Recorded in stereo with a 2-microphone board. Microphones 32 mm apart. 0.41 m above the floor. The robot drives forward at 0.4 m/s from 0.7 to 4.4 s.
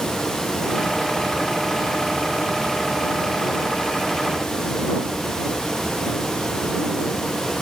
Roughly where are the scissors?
No scissors in this recording.